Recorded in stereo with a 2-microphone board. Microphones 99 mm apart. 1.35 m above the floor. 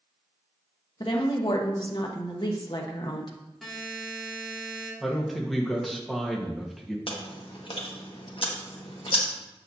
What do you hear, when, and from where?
1.0 s a woman speaking: 50° left (ahead or behind), 1.0 m
3.6 s a buzzer: centre (ahead or behind), 3 m
5.0 s a man speaking: centre (ahead or behind), 1.4 m
7.1 s chewing: 60° left (ahead or behind), 1.2 m